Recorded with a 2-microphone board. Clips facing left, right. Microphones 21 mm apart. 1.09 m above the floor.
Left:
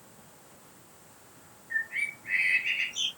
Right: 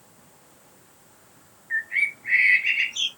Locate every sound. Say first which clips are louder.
1.7 s a bird: right 7 dB; 25° right (ahead or behind), 1.8 m